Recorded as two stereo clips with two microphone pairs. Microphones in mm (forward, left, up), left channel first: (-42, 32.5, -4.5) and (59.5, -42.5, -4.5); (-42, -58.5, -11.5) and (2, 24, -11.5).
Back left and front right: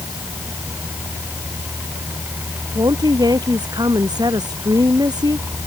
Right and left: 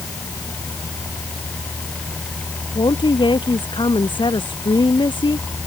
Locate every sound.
2.8 s a woman speaking: 90° right